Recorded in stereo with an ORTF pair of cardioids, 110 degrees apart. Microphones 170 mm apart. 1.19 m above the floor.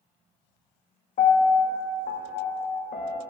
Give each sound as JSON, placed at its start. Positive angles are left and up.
{"t": 1.2, "sound": "a piano", "azimuth_deg": 50, "distance_m": 0.9}